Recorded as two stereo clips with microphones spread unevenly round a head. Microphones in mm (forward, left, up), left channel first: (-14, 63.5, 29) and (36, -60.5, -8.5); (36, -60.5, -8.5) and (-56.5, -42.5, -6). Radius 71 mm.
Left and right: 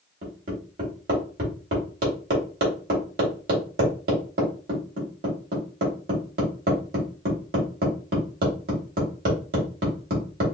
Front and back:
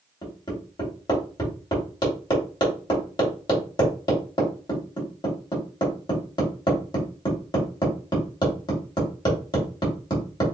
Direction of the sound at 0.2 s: 55° right.